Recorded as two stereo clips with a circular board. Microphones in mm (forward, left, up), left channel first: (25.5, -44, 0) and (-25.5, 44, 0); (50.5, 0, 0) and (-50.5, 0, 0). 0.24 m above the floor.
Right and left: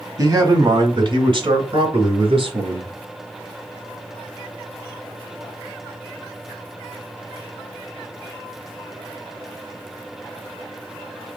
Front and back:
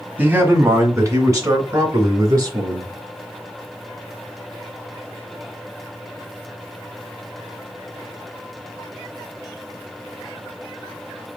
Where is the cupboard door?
No cupboard door in this recording.